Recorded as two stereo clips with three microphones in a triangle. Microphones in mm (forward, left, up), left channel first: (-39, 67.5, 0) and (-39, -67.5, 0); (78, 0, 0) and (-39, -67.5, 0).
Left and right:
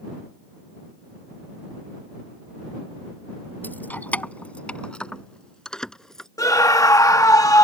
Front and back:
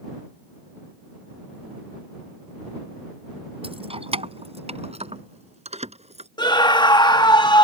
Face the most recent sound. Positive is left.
turn(degrees=50)